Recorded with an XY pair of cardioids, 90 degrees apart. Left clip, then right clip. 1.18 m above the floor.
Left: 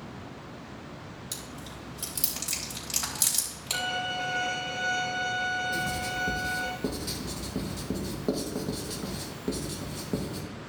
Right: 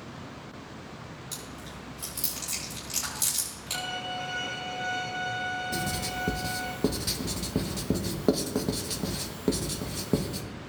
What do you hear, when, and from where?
1.3 s chewing: 45° left, 4 m
3.7 s a violin: 50° left, 3 m
5.7 s writing: 50° right, 1.2 m